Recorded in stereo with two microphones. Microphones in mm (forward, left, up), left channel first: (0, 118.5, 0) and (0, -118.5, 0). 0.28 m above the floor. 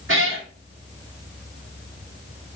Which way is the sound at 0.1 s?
55° right (ahead or behind).